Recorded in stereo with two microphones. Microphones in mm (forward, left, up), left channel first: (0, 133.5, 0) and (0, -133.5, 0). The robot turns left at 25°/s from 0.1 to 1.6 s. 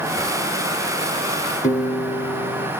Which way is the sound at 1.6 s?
25° left (ahead or behind).